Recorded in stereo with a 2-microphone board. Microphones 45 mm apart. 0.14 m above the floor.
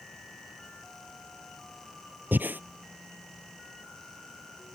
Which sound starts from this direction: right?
Breathing, at 2.3 s.